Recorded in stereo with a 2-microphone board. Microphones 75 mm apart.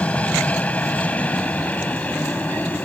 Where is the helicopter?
20° left (ahead or behind).